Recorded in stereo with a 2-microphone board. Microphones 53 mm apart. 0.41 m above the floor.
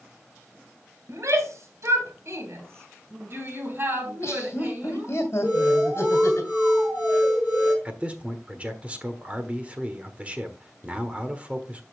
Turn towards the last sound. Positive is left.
turn(degrees=-25)  # may be behind; listen again after turning